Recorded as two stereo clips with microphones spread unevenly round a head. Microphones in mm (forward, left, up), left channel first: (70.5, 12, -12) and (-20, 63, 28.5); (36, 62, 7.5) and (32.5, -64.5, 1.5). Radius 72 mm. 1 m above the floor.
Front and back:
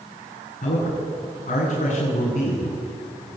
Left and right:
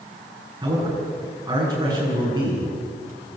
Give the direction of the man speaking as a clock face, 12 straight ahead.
1 o'clock.